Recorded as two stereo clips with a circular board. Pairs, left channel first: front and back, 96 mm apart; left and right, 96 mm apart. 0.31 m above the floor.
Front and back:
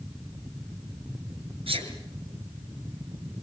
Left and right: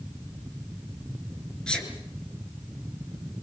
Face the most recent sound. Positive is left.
turn(degrees=170)